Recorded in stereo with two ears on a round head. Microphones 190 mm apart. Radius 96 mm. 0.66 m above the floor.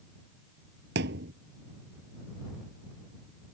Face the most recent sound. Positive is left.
turn(degrees=-50)  # may be behind; listen again after turning